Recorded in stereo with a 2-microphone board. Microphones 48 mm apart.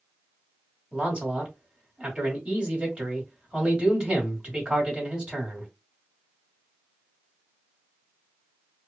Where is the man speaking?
25° right (ahead or behind), 1.6 m.